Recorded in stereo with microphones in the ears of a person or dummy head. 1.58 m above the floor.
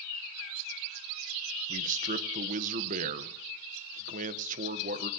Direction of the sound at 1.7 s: 45° right (ahead or behind).